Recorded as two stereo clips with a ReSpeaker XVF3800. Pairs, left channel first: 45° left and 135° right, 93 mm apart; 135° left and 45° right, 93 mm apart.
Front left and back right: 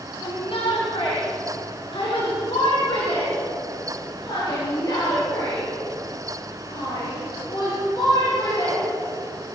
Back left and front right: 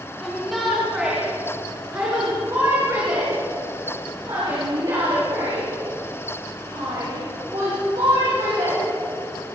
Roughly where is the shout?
Ahead left.